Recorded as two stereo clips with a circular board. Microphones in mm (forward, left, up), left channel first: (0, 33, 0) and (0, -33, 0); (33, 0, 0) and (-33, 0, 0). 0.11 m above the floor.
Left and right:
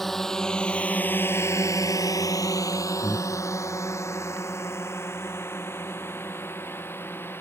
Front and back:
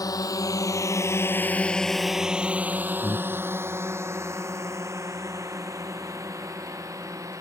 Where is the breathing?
170° left.